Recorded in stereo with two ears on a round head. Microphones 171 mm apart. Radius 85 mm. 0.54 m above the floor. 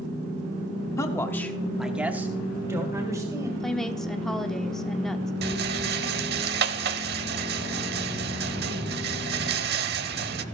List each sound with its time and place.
1.0 s a man speaking: 20° left (ahead or behind), 1.2 m; by 3.5 s 20° right (ahead or behind), 2.5 m
3.6 s a woman speaking: 5° left (ahead or behind), 0.8 m
5.4 s a rattle: 60° right (ahead or behind), 0.8 m